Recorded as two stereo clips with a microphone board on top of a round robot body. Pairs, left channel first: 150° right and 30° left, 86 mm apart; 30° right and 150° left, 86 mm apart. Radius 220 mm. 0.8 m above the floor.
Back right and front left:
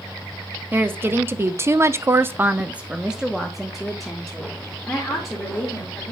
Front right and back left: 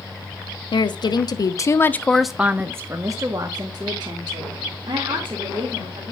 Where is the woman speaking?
35° right, 1.2 m; by 6.1 s 125° left, 3 m.